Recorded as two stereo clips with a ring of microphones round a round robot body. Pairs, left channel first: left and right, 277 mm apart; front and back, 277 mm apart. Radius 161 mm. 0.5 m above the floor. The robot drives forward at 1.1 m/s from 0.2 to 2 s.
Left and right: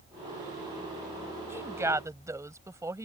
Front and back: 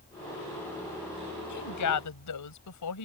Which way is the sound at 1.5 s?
10° right.